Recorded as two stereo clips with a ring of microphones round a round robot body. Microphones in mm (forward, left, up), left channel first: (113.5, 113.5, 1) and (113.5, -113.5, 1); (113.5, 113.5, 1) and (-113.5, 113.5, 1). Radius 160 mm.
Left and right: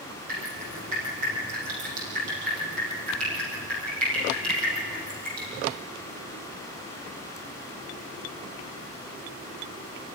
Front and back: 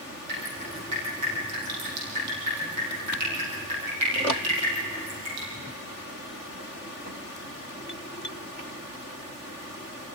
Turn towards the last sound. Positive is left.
turn(degrees=-140)